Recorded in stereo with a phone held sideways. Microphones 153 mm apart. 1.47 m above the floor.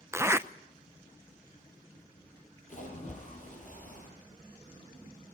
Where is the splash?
55° left (ahead or behind), 6.5 m.